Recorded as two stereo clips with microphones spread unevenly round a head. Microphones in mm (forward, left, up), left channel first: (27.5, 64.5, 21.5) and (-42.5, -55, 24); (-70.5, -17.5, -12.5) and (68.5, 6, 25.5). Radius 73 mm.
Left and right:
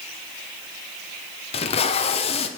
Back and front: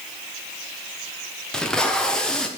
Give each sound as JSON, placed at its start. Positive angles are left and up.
{"t": 1.5, "sound": "tape being pulled", "azimuth_deg": 110, "distance_m": 0.6}